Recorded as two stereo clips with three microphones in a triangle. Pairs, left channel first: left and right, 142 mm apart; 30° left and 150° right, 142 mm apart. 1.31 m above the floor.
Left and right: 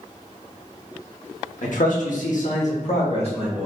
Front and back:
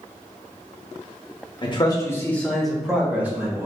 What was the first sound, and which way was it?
A man speaking, 80° left.